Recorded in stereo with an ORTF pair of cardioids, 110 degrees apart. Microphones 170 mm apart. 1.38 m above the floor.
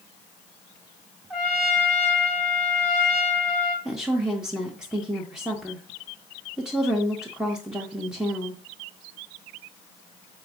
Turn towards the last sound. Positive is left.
turn(degrees=-5)